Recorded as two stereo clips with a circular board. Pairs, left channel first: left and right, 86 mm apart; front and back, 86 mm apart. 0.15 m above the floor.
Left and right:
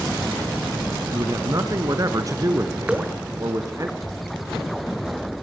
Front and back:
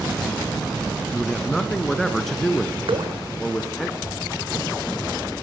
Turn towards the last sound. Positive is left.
turn(degrees=-165)